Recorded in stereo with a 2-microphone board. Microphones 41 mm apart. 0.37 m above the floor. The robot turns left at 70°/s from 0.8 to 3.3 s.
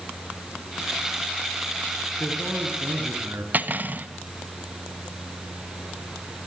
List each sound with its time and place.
2.2 s a man speaking: 15° right, 4 m; by 3.4 s 95° right, 4 m
3.5 s cutlery clinking: 45° right (ahead or behind), 1.6 m